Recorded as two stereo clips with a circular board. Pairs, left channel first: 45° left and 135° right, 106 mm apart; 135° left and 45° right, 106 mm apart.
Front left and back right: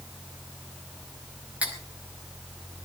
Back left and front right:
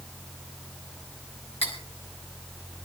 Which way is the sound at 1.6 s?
150° left.